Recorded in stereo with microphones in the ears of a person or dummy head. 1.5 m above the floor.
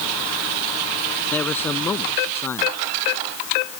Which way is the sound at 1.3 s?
10° left (ahead or behind).